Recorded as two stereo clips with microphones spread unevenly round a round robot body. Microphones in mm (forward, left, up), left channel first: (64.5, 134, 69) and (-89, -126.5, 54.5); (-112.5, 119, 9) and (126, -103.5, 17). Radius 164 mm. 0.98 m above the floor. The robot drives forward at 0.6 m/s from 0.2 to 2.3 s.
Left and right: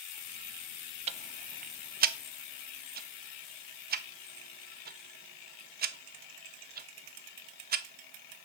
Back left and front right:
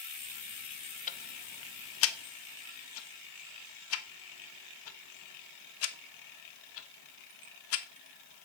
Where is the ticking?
175° right, 0.5 m; by 8.4 s straight behind, 1.1 m.